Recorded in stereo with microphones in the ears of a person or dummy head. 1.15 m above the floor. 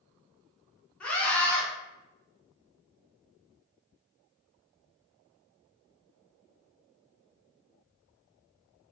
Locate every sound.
1.0 s a scream: 5° left (ahead or behind), 0.6 m